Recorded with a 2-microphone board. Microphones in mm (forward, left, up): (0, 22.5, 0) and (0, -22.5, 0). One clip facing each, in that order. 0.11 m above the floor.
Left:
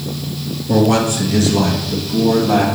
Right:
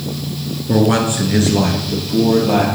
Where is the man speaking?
20° right (ahead or behind), 1.2 m; by 2.6 s 35° right (ahead or behind), 3 m.